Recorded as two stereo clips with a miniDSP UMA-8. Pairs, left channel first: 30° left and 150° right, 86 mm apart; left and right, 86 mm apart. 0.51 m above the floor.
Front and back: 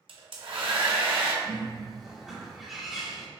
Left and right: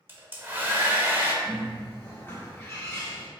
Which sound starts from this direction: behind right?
A hair dryer, at 0.1 s.